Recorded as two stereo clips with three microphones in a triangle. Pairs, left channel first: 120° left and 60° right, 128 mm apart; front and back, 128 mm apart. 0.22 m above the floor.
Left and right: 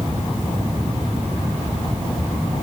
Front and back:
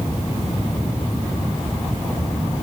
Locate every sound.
Only background noise.